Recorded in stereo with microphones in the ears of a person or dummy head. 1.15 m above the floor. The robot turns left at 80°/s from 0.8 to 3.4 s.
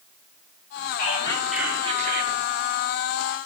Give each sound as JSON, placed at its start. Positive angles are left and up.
{"t": 1.0, "sound": "whispering", "azimuth_deg": 45, "distance_m": 1.8}